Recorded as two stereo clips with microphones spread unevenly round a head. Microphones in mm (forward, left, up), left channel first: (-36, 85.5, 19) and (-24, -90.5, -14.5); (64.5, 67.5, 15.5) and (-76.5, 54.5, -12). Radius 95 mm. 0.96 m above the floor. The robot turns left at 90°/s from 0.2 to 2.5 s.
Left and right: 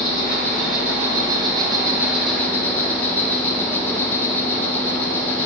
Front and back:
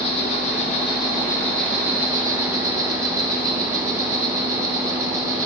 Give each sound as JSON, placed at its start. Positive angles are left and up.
{"t": 0.0, "sound": "an insect", "azimuth_deg": 30, "distance_m": 0.9}